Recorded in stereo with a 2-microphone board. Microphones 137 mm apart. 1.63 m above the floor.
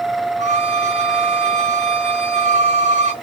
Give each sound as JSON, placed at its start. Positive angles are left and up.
{"t": 0.4, "sound": "a violin", "side_deg": -60, "distance_m": 0.9}